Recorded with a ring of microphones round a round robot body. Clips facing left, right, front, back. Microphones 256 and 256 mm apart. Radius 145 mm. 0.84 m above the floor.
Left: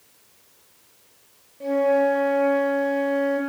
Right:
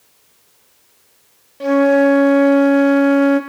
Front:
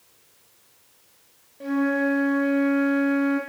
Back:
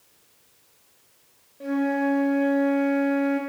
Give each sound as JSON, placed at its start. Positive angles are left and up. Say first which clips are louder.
{"t": 1.6, "sound": "a flute", "louder": "right 8 dB, front 1 dB", "azimuth_deg": -90, "distance_m": 0.5}